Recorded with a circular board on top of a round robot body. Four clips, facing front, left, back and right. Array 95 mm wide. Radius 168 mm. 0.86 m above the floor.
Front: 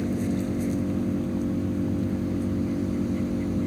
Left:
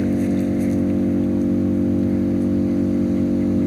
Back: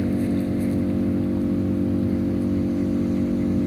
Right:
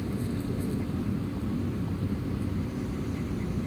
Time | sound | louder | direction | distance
0.0 | an engine running | left 14 dB, back 4 dB | 105° left | ?